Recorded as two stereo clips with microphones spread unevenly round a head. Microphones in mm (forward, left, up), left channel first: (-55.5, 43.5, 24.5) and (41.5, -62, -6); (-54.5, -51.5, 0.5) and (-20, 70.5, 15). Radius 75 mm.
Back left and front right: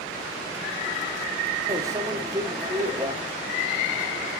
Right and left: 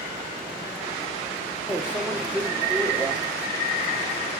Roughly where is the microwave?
Ahead left.